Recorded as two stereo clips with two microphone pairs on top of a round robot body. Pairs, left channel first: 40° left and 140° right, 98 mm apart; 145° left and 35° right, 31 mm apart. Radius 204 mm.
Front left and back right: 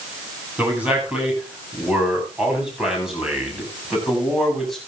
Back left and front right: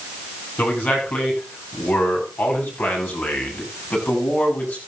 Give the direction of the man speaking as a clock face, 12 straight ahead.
7 o'clock.